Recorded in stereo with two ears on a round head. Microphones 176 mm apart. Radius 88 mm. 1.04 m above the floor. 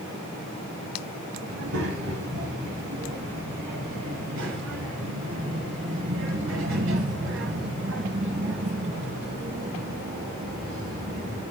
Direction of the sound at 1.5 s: 80° right.